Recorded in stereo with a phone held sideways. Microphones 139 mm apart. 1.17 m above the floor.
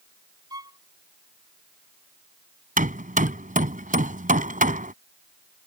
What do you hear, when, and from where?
0.5 s a violin: 25° right (ahead or behind)
2.8 s hammering: 75° right (ahead or behind)